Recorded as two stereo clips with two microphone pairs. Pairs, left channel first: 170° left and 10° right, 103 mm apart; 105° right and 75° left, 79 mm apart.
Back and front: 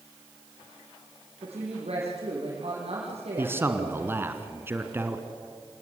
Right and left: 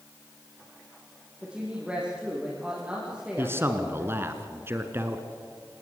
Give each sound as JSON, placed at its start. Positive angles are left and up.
{"t": 1.4, "sound": "a woman speaking", "azimuth_deg": 0, "distance_m": 5.5}
{"t": 3.4, "sound": "a man speaking", "azimuth_deg": 40, "distance_m": 1.9}